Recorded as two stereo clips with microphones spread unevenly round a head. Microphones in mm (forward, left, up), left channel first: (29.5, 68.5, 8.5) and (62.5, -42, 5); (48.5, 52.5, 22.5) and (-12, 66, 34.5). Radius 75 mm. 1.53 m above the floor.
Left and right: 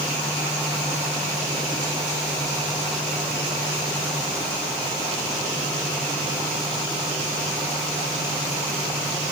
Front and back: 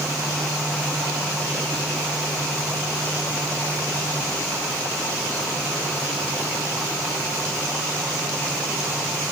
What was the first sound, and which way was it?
Only background noise.